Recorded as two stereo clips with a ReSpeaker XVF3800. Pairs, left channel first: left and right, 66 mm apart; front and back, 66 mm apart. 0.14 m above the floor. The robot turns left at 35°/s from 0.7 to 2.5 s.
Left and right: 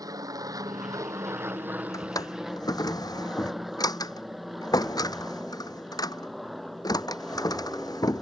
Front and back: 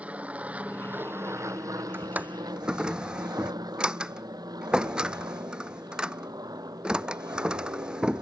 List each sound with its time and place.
0.0 s an aircraft: 110° right; by 8.2 s straight behind
1.9 s a drawer: 120° left; by 8.2 s 105° left